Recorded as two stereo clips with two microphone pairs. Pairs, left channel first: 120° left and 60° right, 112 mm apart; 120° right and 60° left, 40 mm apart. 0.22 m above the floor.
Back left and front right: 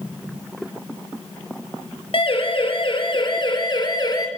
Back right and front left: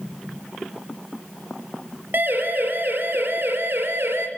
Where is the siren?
90° left, 5.5 m; by 4.3 s 75° left, 4.5 m.